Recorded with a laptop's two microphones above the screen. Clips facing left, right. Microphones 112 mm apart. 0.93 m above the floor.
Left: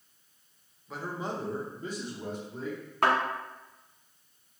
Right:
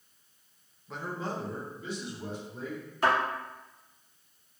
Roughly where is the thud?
Left.